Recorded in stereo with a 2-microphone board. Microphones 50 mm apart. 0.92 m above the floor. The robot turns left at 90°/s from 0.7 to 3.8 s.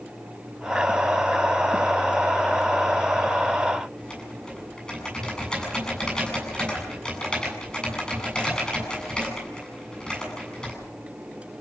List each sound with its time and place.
4.0 s typing on a keyboard: 15° left (ahead or behind), 8 m